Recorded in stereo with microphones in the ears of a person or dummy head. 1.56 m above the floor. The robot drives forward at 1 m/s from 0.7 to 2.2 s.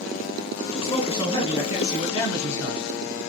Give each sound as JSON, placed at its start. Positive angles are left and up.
{"t": 0.8, "sound": "a man speaking", "side_deg": 25, "distance_m": 1.9}